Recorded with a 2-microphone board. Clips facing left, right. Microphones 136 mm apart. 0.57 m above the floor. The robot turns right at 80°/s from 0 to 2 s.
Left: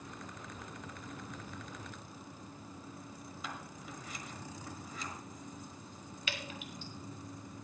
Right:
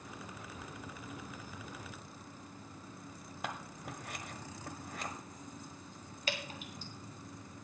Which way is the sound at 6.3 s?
40° right (ahead or behind).